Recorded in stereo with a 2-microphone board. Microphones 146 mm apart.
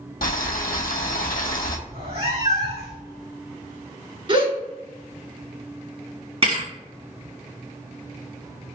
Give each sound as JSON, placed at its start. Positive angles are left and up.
{"t": 0.2, "sound": "boiling", "side_deg": 85, "distance_m": 0.7}
{"t": 1.9, "sound": "a cat meowing", "side_deg": -45, "distance_m": 1.4}
{"t": 4.3, "sound": "a gasp", "side_deg": -40, "distance_m": 1.3}
{"t": 6.4, "sound": "a thud", "side_deg": -45, "distance_m": 1.7}